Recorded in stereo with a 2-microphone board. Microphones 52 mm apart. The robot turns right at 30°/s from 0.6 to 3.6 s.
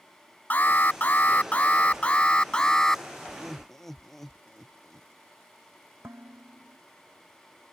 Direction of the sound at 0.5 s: 90° left.